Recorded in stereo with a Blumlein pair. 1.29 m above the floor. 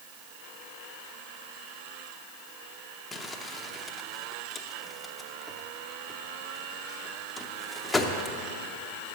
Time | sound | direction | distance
3.1 | crumpling | 10° left | 0.8 m